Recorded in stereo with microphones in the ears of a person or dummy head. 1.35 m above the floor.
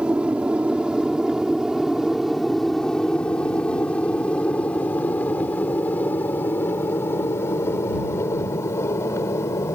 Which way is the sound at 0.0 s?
5° right (ahead or behind).